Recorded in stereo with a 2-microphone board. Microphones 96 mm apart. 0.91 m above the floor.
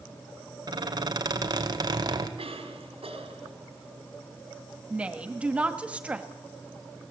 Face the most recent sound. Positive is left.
turn(degrees=-15)  # may be behind; listen again after turning